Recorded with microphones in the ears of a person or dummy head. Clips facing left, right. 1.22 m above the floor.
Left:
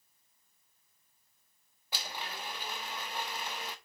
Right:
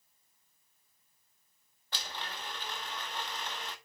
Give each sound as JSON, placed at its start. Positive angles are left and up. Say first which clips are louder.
{"t": 1.9, "sound": "a blender", "louder": "left 1 dB", "side_deg": 5, "distance_m": 0.9}